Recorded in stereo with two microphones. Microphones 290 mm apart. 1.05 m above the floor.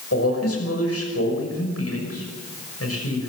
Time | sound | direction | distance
0.1 | a man speaking | 55° left (ahead or behind) | 6 m